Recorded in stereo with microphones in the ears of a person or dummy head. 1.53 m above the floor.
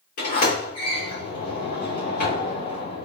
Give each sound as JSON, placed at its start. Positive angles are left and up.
{"t": 0.2, "sound": "a sliding door", "side_deg": 55, "distance_m": 1.7}